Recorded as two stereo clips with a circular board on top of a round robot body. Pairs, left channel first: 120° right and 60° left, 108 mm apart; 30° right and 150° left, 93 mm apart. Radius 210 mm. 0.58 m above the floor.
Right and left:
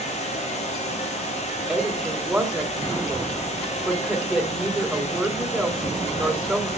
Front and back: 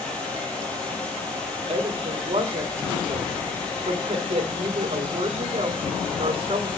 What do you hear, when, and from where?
0.0 s running water: 110° right, 3 m
1.7 s a woman speaking: 145° left, 3 m